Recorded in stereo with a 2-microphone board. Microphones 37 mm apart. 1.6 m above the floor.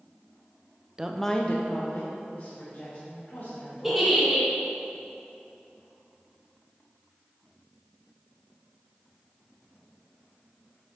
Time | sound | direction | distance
1.0 | a woman speaking | 20° right (ahead or behind) | 0.5 m
3.8 | a giggle | 10° right (ahead or behind) | 2 m